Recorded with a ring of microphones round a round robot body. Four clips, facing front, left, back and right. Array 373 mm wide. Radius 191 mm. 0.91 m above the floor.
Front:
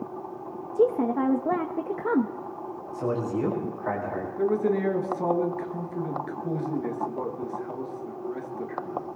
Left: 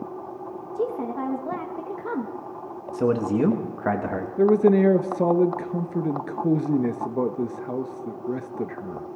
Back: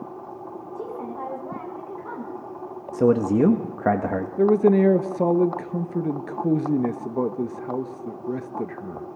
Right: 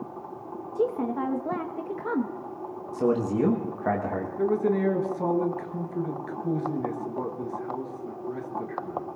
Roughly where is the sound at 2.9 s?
Behind.